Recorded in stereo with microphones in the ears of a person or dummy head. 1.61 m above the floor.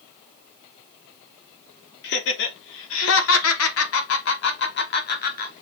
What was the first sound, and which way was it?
Laughter, 65° left (ahead or behind).